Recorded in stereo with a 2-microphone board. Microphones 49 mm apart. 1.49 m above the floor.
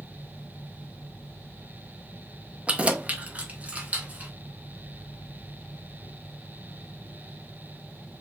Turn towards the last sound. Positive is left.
turn(degrees=-30)  # may be behind; listen again after turning